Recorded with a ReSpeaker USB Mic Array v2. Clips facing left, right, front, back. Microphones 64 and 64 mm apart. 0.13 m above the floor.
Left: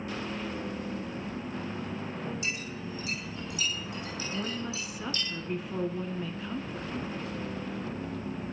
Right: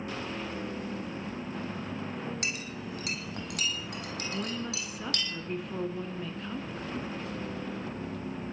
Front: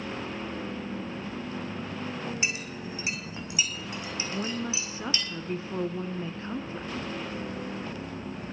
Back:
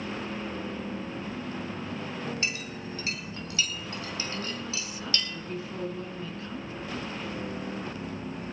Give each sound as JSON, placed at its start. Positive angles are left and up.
{"t": 2.4, "sound": "a clink", "azimuth_deg": -75, "distance_m": 3.5}
{"t": 4.3, "sound": "a woman speaking", "azimuth_deg": 5, "distance_m": 1.2}